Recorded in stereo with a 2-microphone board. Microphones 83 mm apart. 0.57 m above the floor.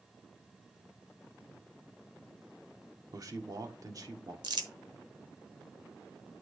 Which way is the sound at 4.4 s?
60° right (ahead or behind).